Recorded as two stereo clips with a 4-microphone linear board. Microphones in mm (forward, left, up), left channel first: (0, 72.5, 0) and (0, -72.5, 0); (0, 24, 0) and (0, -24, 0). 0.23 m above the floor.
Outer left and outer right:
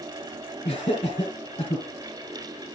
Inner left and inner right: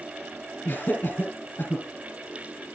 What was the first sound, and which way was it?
Laughter, 40° left (ahead or behind).